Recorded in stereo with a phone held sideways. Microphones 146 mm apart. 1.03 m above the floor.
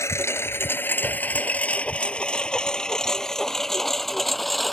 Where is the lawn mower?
20° left (ahead or behind); by 4.7 s centre (ahead or behind).